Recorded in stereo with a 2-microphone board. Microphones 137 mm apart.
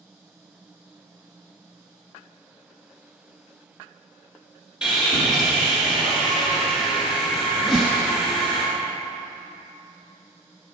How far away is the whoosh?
About 0.5 m.